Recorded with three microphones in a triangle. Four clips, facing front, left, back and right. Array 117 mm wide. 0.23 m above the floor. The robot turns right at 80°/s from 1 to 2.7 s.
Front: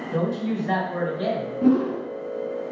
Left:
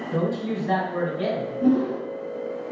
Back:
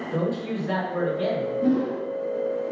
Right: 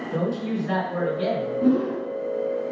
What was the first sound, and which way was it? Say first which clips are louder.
A woman speaking: left 1 dB, front 2 dB; 20° left.